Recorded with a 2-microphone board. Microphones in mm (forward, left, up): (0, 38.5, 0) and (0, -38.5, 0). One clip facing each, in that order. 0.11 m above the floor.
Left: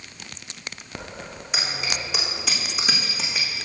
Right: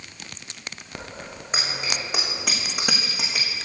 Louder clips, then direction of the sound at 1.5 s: Even; 40° right (ahead or behind).